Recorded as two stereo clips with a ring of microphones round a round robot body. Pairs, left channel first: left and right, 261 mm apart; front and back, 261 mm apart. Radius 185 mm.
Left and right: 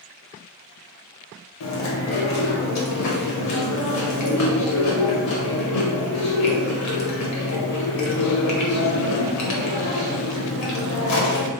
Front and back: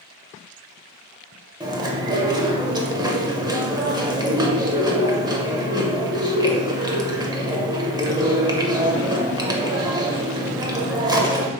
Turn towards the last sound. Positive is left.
turn(degrees=105)